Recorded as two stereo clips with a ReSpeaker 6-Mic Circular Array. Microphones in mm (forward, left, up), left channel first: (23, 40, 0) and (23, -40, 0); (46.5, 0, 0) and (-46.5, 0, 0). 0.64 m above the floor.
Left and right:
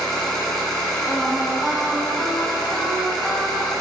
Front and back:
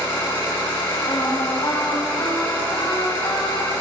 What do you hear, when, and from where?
0.0 s an engine running: 5° left, 4 m
1.1 s singing: straight ahead, 2.5 m